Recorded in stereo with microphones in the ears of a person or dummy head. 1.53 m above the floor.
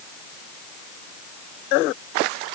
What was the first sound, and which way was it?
Only background noise.